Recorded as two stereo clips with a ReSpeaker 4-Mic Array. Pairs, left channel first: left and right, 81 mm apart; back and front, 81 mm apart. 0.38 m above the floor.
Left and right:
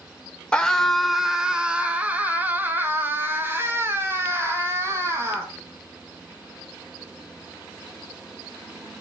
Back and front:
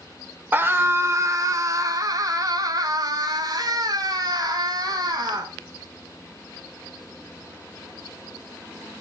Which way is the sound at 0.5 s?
25° left.